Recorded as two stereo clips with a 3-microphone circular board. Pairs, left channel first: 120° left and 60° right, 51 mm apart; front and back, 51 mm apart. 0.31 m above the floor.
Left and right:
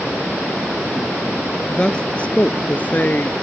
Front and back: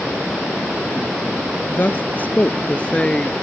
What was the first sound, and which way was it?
A woman speaking, 50° left.